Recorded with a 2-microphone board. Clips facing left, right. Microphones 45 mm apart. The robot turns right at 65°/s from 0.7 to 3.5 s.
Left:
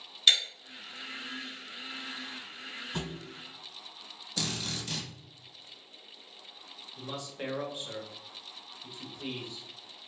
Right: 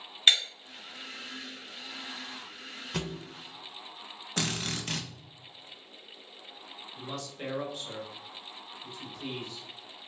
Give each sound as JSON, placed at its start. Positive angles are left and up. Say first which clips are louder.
{"t": 0.3, "sound": "breaking glass", "louder": "right 1 dB", "side_deg": -35, "distance_m": 1.4}
{"t": 2.9, "sound": "a thud", "louder": "right 4 dB", "side_deg": -70, "distance_m": 1.3}
{"t": 4.4, "sound": "a drill", "louder": "right 3 dB", "side_deg": -50, "distance_m": 0.6}
{"t": 7.0, "sound": "a man speaking", "louder": "left 1 dB", "side_deg": 15, "distance_m": 0.9}